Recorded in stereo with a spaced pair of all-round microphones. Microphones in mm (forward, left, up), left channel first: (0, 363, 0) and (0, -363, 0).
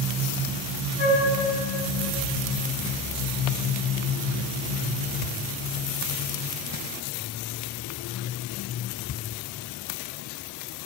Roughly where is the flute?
Right.